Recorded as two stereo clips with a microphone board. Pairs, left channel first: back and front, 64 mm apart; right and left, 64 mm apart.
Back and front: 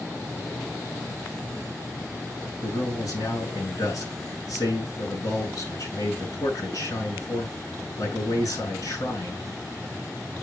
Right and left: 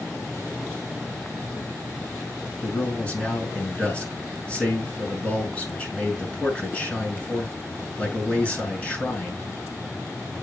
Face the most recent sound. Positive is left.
turn(degrees=-160)